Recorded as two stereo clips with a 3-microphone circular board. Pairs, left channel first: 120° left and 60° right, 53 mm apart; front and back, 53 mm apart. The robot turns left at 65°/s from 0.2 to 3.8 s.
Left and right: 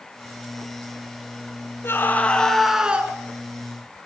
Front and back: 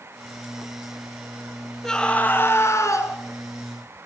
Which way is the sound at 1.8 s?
80° left.